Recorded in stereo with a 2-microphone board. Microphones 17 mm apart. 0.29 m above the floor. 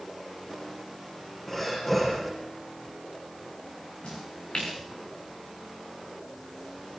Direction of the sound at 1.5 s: 20° left (ahead or behind).